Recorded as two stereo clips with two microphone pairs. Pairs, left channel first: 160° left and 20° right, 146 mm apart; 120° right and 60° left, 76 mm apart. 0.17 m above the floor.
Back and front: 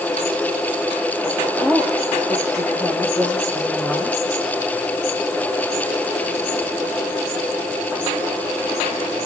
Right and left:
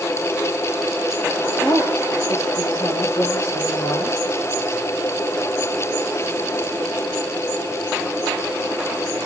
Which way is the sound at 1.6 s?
115° right.